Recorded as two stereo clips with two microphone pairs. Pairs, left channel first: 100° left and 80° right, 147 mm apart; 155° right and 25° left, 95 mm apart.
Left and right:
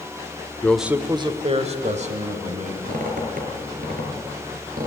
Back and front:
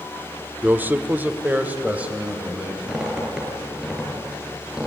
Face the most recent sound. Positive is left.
turn(degrees=-60)